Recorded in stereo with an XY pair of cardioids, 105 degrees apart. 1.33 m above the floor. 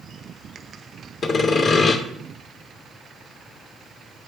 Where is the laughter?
No laughter in this recording.